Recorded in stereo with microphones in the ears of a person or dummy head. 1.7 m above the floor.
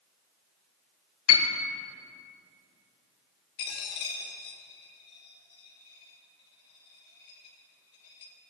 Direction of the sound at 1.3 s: 80° left.